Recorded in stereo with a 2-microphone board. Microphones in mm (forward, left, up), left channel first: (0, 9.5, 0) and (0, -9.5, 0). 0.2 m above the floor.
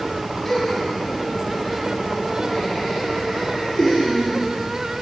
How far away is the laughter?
About 1.8 m.